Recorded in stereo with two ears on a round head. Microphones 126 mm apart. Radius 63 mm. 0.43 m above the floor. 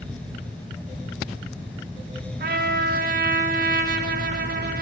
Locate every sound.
2.4 s a trumpet: 70° right (ahead or behind), 0.6 m